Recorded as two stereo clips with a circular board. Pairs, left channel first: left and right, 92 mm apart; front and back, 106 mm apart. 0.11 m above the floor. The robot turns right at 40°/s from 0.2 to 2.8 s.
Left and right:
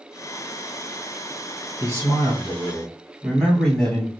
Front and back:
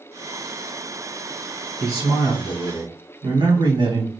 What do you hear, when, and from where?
1.8 s a man speaking: 130° left, 1.6 m; by 4.1 s 170° left, 1.6 m